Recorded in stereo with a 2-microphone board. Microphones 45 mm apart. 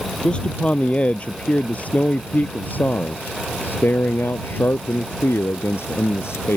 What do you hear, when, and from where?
0.2 s a man speaking: 25° left (ahead or behind); by 6.6 s 75° left (ahead or behind)